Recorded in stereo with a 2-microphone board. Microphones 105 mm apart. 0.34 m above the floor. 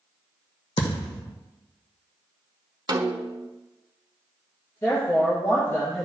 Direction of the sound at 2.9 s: 50° right (ahead or behind).